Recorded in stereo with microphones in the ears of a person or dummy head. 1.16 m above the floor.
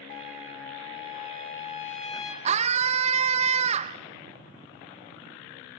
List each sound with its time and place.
0.1 s a trumpet: 45° left (ahead or behind), 2.5 m
2.5 s a scream: 35° right (ahead or behind), 0.7 m